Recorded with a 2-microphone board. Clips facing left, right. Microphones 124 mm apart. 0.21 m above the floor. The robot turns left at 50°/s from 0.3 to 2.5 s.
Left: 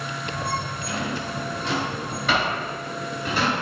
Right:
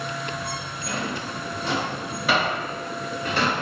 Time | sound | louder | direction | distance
0.9 | a drawer | right 1 dB | 65° right (ahead or behind) | 1.9 m